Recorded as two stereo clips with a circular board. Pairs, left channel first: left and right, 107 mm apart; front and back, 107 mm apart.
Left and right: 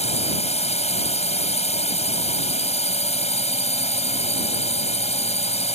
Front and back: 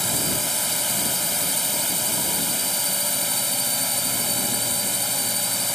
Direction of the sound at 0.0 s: 90° left.